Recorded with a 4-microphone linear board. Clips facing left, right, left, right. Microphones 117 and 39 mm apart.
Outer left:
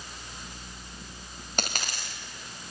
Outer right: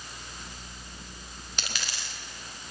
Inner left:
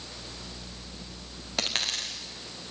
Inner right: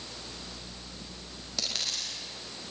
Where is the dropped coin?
50° left (ahead or behind), 3.5 m.